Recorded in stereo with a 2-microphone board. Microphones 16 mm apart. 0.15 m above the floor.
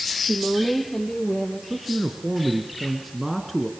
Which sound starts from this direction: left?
A woman speaking, at 0.3 s.